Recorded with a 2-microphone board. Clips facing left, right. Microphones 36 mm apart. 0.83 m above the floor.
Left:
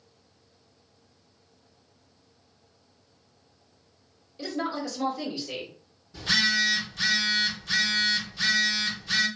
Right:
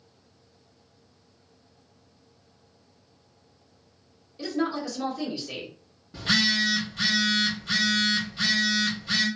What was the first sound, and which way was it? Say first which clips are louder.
A woman speaking: right 3 dB; centre (ahead or behind).